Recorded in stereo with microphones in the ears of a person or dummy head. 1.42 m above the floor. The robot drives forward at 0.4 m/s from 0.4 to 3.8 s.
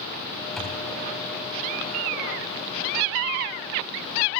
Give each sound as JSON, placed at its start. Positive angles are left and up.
{"t": 0.6, "sound": "a thud", "side_deg": 5, "distance_m": 3.5}